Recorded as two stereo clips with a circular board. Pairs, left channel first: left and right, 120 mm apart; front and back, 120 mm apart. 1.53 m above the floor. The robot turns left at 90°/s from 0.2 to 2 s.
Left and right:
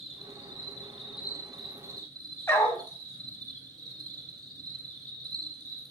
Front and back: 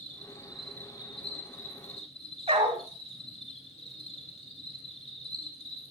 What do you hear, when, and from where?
0.0 s an insect: 130° left, 4 m; by 5.9 s 35° right, 4 m
2.5 s a dog barking: 155° left, 2.5 m